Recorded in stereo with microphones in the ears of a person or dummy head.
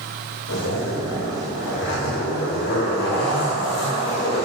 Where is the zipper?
60° left (ahead or behind), 5.5 m.